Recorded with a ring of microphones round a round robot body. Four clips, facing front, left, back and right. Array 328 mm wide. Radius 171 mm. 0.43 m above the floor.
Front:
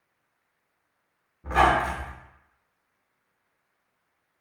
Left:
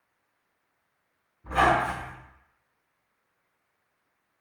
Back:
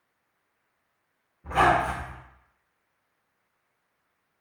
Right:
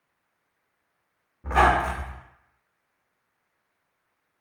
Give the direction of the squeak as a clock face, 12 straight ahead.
2 o'clock.